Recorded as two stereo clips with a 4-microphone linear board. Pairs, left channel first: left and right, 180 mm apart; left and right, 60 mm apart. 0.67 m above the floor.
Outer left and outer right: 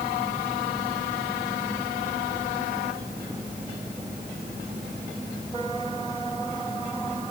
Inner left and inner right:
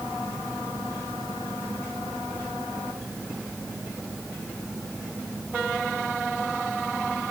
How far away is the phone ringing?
I don't hear a phone ringing.